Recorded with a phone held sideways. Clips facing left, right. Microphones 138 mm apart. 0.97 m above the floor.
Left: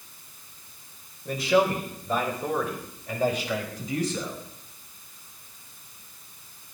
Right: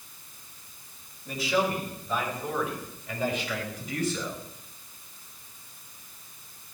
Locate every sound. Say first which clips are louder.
1.2 s a man speaking: left 5 dB; 65° left (ahead or behind), 4 m; by 4.4 s 30° left (ahead or behind), 5 m